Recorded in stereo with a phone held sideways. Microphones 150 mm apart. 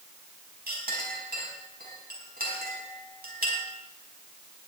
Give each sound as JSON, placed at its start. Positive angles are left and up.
{"t": 0.7, "sound": "a clink", "side_deg": -85, "distance_m": 4.0}